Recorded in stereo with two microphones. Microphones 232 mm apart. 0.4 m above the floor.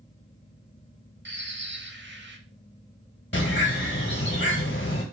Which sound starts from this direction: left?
A bird, at 3.3 s.